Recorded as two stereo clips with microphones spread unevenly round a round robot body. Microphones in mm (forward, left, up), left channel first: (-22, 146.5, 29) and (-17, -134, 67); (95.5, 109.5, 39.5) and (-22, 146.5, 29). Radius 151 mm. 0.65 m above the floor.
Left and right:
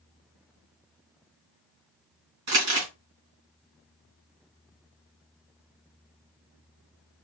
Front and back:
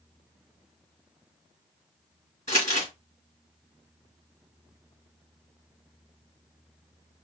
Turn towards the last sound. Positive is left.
turn(degrees=-80)